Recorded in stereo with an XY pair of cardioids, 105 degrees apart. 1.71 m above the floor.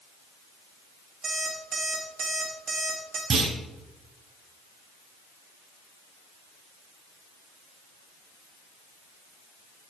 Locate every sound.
1.2 s an alarm clock: 70° right, 4.5 m
3.3 s a clunk: 50° right, 6 m